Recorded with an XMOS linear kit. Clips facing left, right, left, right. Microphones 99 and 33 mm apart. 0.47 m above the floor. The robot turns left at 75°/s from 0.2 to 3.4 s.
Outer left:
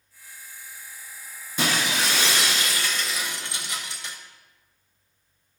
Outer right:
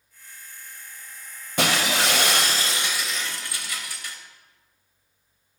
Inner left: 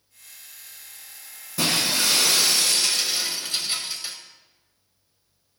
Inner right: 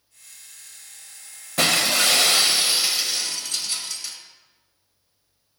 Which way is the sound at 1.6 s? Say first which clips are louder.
Outer right 2 dB, inner right 3 dB; 65° right.